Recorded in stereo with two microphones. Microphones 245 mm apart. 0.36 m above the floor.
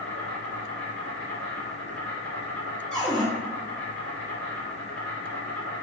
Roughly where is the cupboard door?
Centre.